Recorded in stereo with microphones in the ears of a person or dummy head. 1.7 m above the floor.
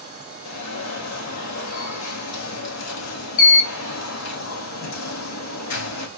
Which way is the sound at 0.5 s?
75° left (ahead or behind).